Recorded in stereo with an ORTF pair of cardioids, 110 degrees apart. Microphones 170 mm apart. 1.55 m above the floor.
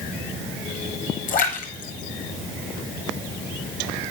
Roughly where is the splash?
Ahead left.